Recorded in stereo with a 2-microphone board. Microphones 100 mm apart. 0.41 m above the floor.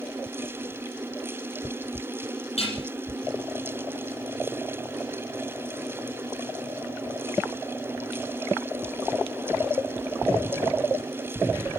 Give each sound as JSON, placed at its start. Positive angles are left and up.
{"t": 2.6, "sound": "dishes clattering", "side_deg": 85, "distance_m": 8.5}